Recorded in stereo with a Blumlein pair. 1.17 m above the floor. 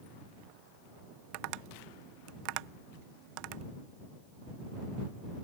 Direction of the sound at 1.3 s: 45° right.